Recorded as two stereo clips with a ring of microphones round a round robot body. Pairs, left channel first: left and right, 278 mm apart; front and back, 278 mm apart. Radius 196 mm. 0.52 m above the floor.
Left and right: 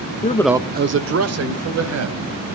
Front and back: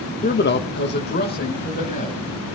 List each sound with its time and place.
0.2 s a man speaking: 45° left, 0.8 m; by 2.2 s 70° right, 3 m